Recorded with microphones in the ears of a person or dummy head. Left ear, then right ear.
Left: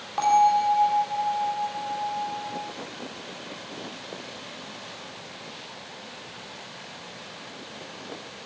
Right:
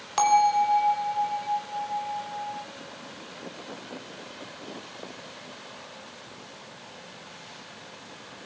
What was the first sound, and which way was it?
A bell, 45° right (ahead or behind).